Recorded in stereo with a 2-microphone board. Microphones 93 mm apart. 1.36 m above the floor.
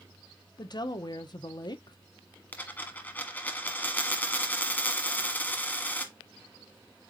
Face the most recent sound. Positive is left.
turn(degrees=20)  # may be behind; listen again after turning